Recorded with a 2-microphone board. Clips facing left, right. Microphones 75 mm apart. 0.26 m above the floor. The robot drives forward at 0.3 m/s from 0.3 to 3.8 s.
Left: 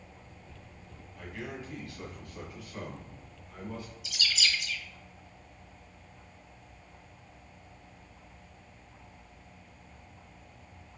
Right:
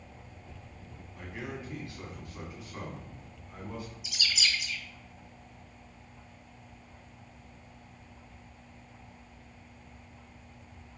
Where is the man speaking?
25° right (ahead or behind), 2 m; by 3.9 s 20° right (ahead or behind), 2.5 m.